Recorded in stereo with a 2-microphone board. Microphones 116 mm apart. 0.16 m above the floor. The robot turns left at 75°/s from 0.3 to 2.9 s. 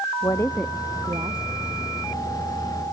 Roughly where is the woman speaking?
Ahead left.